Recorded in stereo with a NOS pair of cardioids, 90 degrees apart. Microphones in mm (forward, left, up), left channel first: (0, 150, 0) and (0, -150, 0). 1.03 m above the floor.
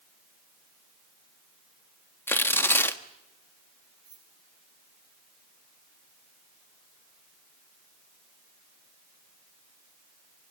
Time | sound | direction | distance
2.3 | tearing paper | 5° left | 1.3 m
4.0 | keys jangling | 55° right | 7.5 m